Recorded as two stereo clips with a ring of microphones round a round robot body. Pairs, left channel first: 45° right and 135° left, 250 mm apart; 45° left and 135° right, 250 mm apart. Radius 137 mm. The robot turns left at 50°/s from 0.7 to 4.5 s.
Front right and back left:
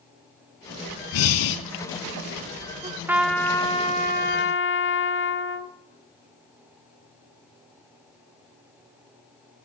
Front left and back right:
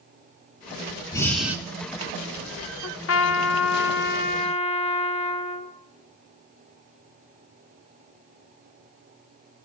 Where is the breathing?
30° right, 0.9 m; by 1.6 s 55° right, 0.9 m.